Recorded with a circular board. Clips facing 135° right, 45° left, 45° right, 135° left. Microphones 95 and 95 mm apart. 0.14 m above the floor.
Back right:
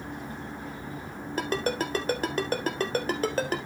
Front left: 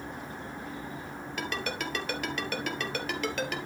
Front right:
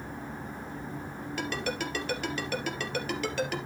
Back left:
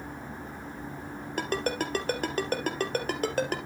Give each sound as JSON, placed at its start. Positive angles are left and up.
{"t": 1.4, "sound": "a ringtone", "azimuth_deg": 175, "distance_m": 1.5}